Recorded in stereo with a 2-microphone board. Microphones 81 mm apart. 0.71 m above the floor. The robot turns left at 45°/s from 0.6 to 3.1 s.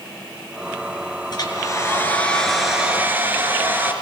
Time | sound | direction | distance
1.3 | a hair dryer | 55° left | 4 m